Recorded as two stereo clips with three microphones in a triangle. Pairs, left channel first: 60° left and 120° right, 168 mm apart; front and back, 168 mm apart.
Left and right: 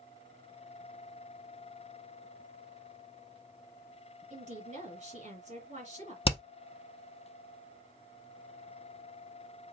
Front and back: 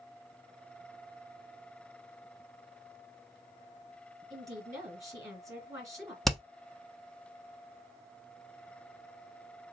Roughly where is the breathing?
No breathing in this recording.